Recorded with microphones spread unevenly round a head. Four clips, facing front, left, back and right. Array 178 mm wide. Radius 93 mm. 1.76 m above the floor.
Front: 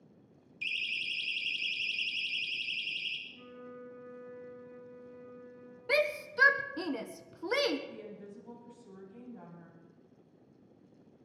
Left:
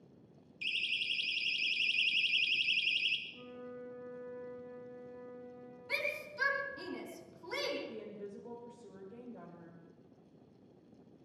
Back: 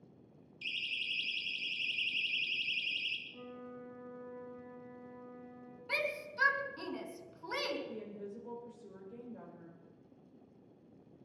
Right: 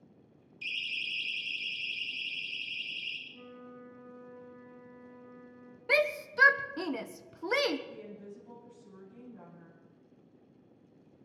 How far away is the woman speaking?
About 6 m.